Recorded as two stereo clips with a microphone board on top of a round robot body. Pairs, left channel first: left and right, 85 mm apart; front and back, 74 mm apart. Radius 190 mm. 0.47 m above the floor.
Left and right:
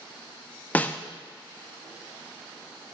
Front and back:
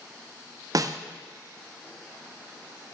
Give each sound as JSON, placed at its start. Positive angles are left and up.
{"t": 0.8, "sound": "a snare drum", "azimuth_deg": 160, "distance_m": 0.6}